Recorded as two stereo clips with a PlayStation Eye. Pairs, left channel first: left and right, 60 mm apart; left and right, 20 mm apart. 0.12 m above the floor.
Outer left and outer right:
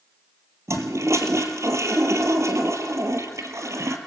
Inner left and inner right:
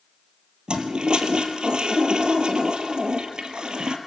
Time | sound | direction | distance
0.7 | a toilet flushing | 55° right (ahead or behind) | 1.8 m